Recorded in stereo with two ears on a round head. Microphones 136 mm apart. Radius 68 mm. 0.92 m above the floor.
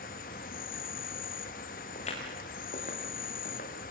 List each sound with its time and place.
0.0 s an insect: 60° left (ahead or behind), 1.2 m
1.9 s footsteps: 45° left (ahead or behind), 7.5 m; by 3.9 s 55° left (ahead or behind), 7.5 m